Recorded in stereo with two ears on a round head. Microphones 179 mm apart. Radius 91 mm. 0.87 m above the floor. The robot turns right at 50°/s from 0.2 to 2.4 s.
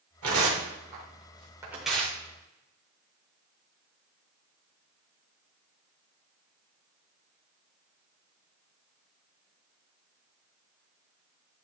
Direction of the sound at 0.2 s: 80° right.